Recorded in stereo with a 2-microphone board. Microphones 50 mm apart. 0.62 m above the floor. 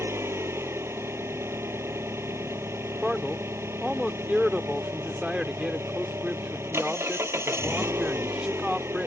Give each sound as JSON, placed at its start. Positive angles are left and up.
{"t": 0.0, "sound": "an engine running", "side_deg": -70}
{"t": 3.0, "sound": "a man speaking", "side_deg": -15}